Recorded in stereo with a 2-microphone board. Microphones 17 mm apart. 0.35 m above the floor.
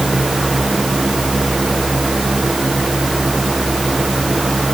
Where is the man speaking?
No man speaking in this recording.